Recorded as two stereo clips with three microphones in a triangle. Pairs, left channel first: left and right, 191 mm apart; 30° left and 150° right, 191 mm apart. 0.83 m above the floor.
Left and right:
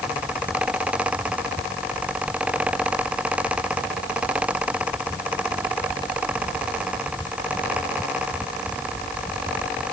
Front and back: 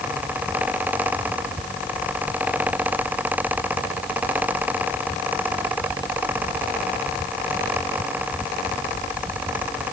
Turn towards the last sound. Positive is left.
No sound to turn to.